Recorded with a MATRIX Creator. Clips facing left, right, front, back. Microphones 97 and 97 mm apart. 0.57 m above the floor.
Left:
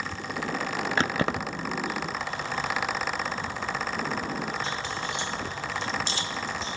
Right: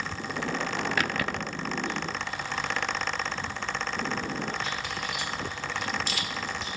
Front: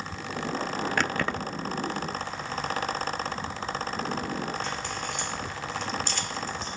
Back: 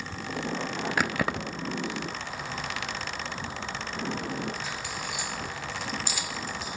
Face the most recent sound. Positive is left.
turn(degrees=105)